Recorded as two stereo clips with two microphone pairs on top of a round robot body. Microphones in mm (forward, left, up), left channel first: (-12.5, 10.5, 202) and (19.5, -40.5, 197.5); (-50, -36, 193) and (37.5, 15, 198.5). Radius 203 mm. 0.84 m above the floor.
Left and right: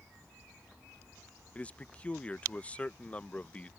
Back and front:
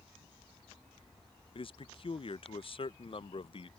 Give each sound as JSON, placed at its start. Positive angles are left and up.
{"t": 1.6, "sound": "a man speaking", "azimuth_deg": -165}